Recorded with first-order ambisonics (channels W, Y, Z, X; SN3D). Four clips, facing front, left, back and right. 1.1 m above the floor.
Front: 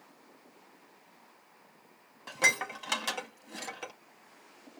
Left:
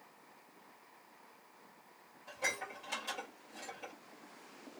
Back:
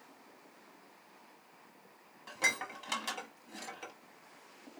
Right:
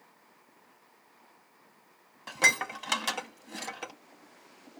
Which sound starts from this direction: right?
Dishes clattering, at 2.3 s.